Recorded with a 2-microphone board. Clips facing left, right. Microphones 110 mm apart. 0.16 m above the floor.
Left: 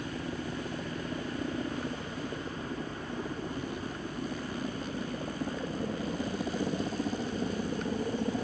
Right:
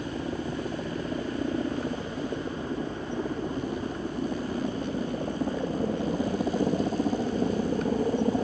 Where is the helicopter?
25° right (ahead or behind); by 8.4 s 30° right (ahead or behind).